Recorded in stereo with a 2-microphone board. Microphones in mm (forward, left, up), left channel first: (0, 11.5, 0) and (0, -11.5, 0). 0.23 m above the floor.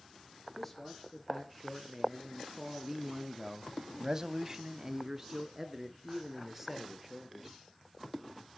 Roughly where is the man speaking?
Centre.